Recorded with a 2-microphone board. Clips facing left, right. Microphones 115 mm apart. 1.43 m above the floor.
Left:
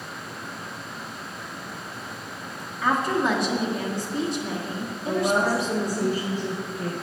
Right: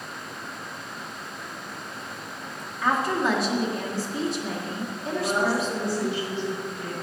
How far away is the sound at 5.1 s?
About 1.6 m.